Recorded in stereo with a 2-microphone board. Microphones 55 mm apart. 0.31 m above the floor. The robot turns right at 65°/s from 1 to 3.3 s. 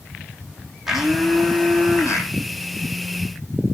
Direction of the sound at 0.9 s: 5° right.